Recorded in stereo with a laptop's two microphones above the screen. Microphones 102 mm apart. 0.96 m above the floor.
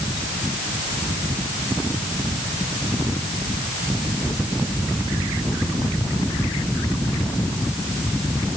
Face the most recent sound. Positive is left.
No sound to turn to.